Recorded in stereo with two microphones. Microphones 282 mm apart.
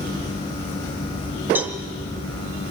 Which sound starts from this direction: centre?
A cowbell, at 1.6 s.